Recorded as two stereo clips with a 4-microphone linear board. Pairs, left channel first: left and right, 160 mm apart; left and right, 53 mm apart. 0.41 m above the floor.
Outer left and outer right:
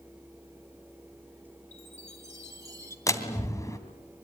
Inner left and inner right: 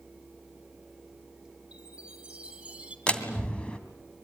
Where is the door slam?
20° left (ahead or behind), 2.5 m.